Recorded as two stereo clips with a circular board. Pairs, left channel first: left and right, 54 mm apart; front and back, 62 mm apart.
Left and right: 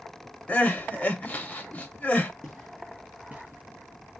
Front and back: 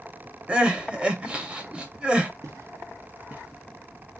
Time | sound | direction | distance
0.5 | crying | 115° left | 0.5 m
2.4 | footsteps | 175° left | 1.1 m